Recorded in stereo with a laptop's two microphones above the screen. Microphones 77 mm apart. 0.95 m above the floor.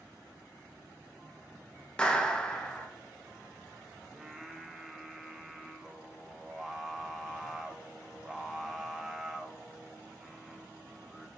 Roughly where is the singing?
Centre.